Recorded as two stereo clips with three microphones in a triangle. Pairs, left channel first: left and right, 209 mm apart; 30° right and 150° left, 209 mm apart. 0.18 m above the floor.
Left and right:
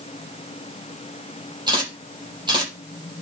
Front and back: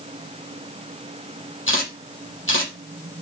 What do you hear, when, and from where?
1.7 s a camera shutter: 20° right, 6.5 m